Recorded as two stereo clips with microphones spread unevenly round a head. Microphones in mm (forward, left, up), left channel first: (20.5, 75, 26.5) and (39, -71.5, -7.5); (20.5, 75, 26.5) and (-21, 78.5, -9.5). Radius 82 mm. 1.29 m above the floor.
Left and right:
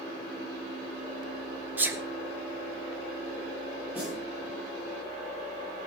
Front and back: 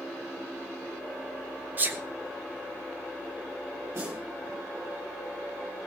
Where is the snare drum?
165° right, 9.5 m.